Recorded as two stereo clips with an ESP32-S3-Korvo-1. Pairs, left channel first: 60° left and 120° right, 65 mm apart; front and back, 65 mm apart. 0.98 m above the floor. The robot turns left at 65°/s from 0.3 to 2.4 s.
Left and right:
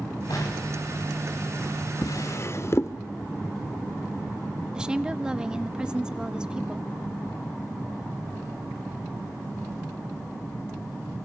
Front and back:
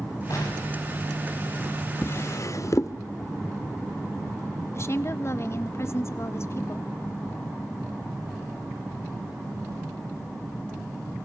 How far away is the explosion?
About 7 m.